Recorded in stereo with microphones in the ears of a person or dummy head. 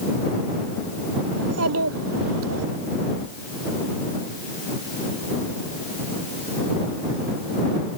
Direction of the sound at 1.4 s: 80° right.